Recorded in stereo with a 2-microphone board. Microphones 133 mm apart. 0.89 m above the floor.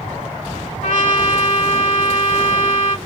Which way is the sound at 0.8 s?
70° left (ahead or behind).